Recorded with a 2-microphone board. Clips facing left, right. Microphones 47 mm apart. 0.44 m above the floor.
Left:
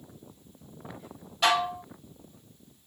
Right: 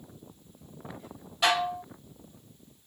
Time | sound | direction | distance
1.4 | dishes clattering | centre (ahead or behind) | 1.1 m